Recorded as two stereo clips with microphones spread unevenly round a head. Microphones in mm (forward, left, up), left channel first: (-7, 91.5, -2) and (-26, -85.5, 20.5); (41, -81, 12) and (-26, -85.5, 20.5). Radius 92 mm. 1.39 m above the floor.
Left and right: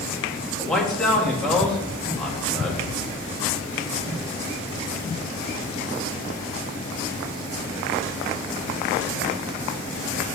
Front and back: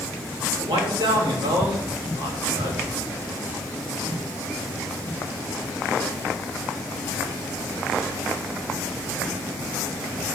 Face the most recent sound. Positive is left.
turn(degrees=170)